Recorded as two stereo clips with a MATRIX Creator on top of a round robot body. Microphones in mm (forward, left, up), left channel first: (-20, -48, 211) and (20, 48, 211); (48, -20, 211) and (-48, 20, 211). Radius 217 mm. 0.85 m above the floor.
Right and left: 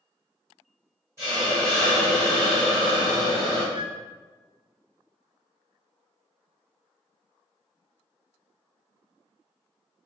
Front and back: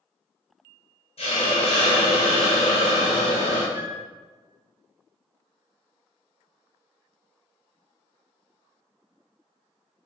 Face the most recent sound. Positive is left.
turn(degrees=90)